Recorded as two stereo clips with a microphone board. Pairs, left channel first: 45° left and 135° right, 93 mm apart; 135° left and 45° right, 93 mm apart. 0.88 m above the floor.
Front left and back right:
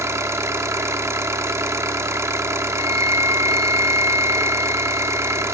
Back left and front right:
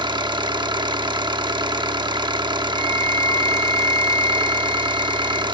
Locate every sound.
0.0 s an engine running: 80° right, 0.7 m
2.7 s a flute: straight behind, 0.9 m